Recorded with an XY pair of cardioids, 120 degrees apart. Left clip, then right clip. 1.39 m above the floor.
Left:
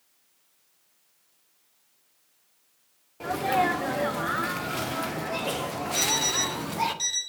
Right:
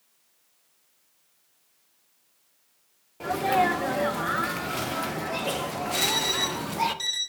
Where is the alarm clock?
Straight ahead, 2.5 m.